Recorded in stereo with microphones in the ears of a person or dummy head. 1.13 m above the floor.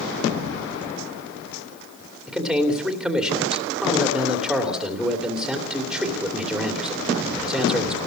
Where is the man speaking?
5° right (ahead or behind), 2.5 m.